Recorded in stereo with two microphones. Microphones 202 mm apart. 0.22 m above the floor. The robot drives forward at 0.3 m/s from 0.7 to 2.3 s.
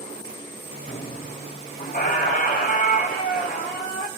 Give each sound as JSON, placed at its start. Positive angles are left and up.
{"t": 0.9, "sound": "a squeak", "side_deg": 40, "distance_m": 3.0}